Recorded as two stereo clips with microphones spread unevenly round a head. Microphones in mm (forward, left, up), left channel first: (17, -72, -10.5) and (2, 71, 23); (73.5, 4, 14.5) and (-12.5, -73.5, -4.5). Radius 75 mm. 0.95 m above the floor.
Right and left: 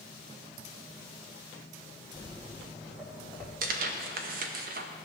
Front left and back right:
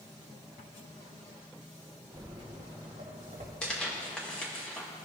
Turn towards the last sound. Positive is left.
turn(degrees=130)